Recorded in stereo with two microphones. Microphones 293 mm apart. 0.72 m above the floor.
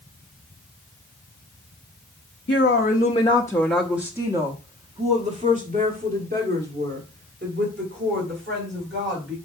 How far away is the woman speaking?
About 0.8 m.